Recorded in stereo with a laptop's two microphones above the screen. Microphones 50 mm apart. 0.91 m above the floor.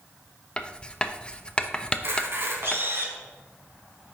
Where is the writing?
20° left (ahead or behind), 0.7 m.